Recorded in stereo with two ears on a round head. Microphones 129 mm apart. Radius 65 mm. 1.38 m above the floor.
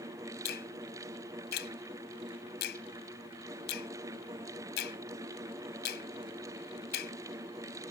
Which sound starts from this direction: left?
A finger snap, at 0.5 s.